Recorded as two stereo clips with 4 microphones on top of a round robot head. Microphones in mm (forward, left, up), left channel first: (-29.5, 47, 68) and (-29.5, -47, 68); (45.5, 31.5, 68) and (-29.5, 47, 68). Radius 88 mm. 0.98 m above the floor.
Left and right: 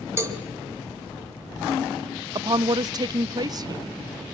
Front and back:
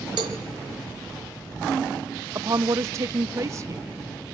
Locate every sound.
0.2 s a cowbell: 150° right, 1.8 m
2.4 s a woman speaking: 140° right, 0.8 m